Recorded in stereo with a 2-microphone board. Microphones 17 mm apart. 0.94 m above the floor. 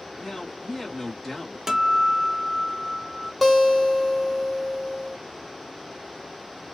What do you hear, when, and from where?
0.2 s a man speaking: 15° left (ahead or behind), 1.9 m
1.7 s a guitar: 20° right (ahead or behind), 0.5 m
3.4 s a guitar: centre (ahead or behind), 1.9 m